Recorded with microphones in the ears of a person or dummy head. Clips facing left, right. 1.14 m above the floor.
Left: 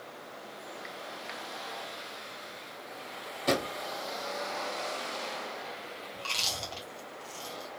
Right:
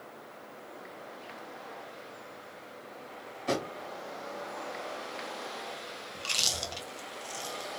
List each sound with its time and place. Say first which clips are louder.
3.5 s a drawer: left 2 dB; 55° left (ahead or behind), 1.4 m
6.2 s chewing: right 1 dB; 15° right (ahead or behind), 0.7 m